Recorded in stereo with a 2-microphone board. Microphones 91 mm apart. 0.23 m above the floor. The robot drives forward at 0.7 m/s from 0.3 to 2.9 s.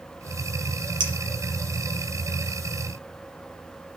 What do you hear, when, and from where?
1.0 s a clink: 55° right (ahead or behind), 4.5 m